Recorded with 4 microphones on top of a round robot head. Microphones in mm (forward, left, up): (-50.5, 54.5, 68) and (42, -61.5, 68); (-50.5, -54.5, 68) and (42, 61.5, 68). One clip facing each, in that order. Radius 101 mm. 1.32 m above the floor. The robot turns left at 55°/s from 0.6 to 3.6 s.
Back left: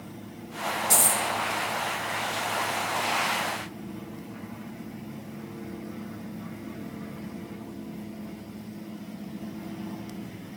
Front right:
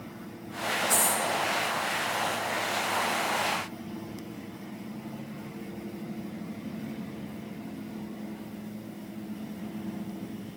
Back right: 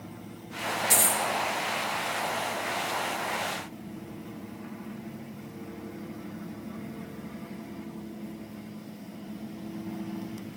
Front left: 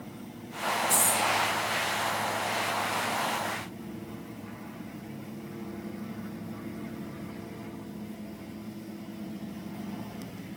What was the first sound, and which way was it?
A dropped coin, 170° right.